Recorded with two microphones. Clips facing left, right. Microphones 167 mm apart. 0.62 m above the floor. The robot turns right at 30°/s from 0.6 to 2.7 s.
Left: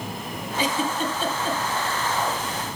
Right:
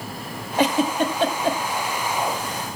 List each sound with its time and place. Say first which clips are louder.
0.6 s a giggle: right 6 dB; 75° right (ahead or behind), 1.5 m